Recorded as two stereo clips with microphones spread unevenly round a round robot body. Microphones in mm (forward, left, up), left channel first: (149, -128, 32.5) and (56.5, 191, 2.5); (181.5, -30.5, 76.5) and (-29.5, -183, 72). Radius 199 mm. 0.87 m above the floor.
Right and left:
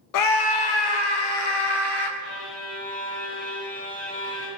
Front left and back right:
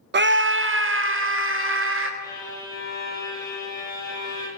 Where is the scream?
95° right, 0.6 m; by 2.1 s 105° right, 2.5 m.